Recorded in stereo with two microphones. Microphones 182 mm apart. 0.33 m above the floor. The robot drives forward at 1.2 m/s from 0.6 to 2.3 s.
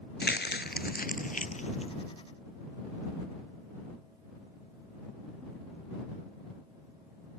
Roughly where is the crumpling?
Left.